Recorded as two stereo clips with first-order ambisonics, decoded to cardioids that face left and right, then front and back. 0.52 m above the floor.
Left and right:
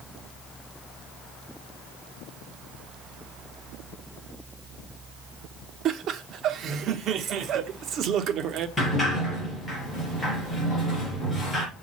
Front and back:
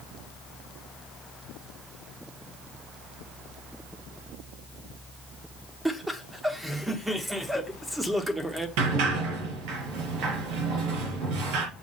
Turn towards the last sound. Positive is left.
turn(degrees=175)